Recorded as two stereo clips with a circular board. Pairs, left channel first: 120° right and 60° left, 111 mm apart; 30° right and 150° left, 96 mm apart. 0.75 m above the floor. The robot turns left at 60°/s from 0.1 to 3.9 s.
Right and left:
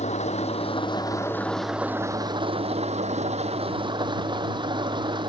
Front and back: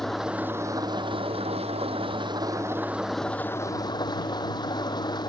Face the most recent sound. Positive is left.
turn(degrees=15)